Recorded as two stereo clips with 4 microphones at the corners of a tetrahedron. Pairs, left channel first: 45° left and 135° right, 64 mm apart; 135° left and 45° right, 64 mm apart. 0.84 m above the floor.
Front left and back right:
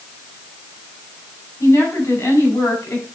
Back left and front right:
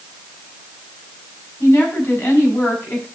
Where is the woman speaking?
75° left, 4.5 m.